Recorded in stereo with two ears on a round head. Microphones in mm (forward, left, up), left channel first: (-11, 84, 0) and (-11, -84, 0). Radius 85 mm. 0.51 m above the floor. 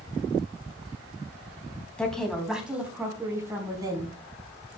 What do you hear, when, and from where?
2.0 s a woman speaking: 5° left (ahead or behind), 3.5 m; by 4.1 s 25° right (ahead or behind), 4.5 m